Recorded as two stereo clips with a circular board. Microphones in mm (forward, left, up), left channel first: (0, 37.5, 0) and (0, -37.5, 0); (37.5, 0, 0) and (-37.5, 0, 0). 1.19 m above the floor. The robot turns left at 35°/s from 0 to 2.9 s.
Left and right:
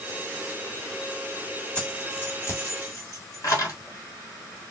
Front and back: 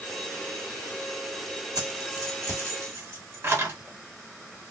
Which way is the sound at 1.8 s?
165° left.